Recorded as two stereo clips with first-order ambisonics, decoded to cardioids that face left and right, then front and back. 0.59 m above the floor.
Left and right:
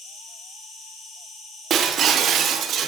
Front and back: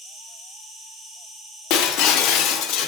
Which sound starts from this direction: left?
An insect, at 0.0 s.